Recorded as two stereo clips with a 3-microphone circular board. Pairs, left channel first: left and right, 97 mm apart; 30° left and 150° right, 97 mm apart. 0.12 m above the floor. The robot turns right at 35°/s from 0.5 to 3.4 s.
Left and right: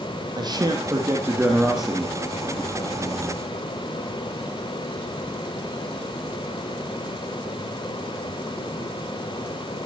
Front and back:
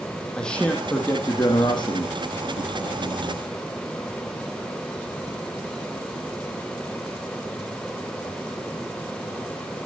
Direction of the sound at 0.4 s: 50° right.